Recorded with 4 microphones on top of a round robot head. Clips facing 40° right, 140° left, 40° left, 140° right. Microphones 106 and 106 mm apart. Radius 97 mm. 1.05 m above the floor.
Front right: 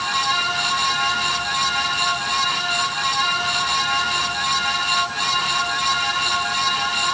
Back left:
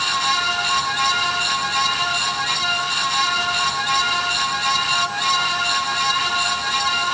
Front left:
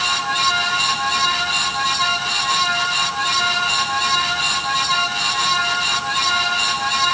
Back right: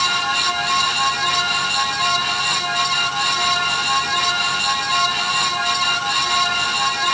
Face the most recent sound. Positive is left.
No sound to turn to.